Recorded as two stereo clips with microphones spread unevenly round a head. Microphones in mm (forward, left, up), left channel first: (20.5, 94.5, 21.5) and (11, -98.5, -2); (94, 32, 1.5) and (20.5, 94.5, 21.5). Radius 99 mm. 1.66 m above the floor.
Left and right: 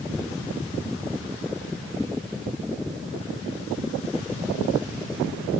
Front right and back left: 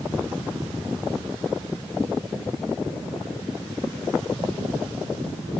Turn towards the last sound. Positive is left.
No sound to turn to.